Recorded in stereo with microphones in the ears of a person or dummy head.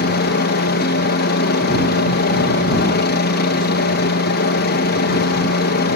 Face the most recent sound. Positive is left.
turn(degrees=50)  # may be behind; listen again after turning